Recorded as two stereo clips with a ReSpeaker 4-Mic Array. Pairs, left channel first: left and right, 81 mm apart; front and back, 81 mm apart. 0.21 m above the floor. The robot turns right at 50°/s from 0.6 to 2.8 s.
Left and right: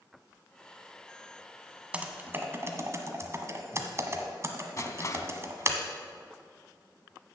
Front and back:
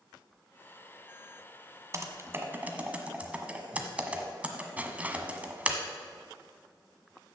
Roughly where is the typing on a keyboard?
Behind.